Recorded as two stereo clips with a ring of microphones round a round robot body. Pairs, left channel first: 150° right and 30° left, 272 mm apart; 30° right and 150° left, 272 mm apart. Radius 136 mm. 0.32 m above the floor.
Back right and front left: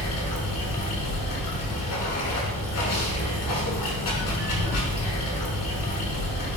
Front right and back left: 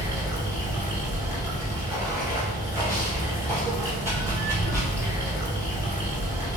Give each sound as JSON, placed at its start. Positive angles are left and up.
{"t": 0.0, "sound": "running water", "azimuth_deg": -130, "distance_m": 0.9}